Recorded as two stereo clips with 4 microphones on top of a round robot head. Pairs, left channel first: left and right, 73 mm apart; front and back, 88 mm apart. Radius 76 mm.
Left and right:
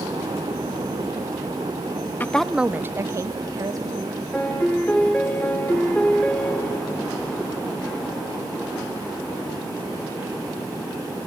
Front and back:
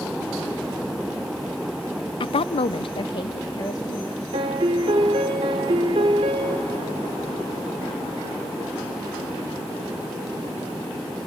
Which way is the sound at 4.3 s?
170° left.